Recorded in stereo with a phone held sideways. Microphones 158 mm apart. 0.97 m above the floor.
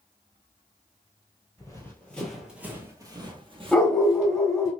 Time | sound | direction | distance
1.6 | running footsteps | 20° left (ahead or behind) | 1.1 m
3.7 | a dog barking | centre (ahead or behind) | 0.8 m